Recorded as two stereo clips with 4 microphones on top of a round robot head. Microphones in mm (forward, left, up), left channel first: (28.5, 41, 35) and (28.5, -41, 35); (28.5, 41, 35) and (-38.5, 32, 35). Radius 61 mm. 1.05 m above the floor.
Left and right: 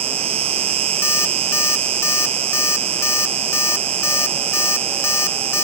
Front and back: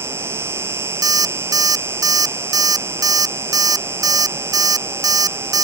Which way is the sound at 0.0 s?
105° right.